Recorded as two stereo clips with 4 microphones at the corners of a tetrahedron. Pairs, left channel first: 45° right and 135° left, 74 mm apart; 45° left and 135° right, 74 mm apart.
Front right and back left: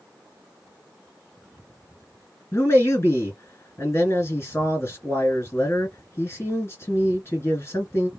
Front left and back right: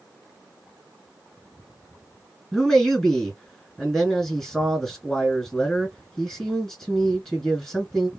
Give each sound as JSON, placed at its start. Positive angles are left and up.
{"t": 2.5, "sound": "a man speaking", "azimuth_deg": -30, "distance_m": 2.0}